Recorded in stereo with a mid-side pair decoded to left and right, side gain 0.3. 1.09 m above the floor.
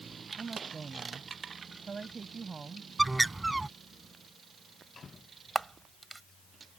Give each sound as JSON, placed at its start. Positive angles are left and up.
{"t": 0.4, "sound": "a woman speaking", "azimuth_deg": -45}
{"t": 3.0, "sound": "a bird", "azimuth_deg": -20}
{"t": 5.5, "sound": "a camera shutter", "azimuth_deg": -30}